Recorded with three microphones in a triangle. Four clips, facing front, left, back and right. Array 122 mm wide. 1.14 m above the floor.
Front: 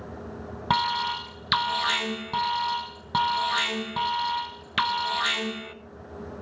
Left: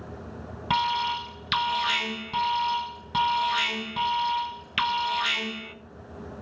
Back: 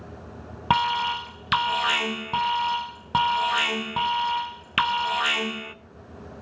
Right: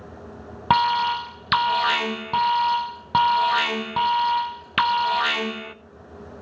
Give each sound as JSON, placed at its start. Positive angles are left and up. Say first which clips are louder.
{"t": 0.7, "sound": "an alarm", "louder": "right 6 dB, back 3 dB", "azimuth_deg": -105, "distance_m": 0.8}